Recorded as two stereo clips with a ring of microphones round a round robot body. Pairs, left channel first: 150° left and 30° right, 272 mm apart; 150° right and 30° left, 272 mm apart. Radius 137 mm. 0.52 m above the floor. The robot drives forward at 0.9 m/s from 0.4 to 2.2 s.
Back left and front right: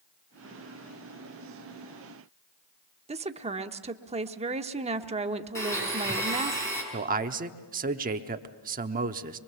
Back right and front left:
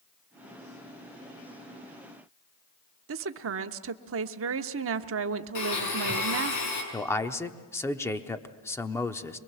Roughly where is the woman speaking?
Ahead left.